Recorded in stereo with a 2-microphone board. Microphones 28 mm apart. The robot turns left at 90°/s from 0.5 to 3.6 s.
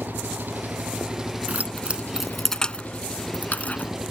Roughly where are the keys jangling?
Right.